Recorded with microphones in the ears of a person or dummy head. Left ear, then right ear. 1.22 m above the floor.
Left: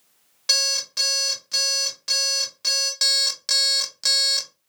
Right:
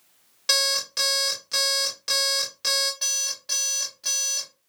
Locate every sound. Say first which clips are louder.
0.5 s an alarm clock: left 1 dB; 5° right (ahead or behind), 0.8 m
3.0 s an alarm clock: left 7 dB; 65° left (ahead or behind), 0.6 m